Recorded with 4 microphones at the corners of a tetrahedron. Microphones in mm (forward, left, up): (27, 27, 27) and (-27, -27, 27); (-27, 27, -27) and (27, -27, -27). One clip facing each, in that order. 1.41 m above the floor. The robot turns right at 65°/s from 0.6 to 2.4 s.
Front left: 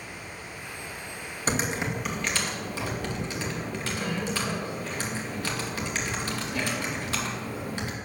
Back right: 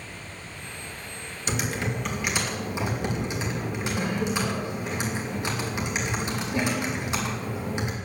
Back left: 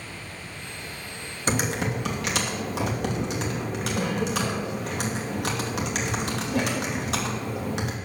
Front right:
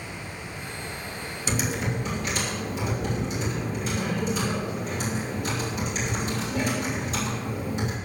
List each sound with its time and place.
1.5 s typing on a keyboard: 90° left, 2.5 m; by 8.0 s 155° left, 2.5 m